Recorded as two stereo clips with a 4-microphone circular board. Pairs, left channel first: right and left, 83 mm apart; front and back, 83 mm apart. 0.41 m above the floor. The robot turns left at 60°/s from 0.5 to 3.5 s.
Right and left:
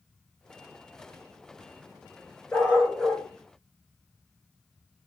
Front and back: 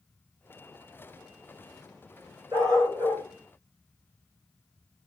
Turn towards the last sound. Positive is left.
turn(degrees=150)